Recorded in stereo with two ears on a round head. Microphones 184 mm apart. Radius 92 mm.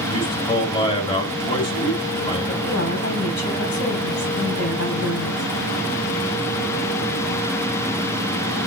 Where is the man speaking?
25° left (ahead or behind), 2.5 m.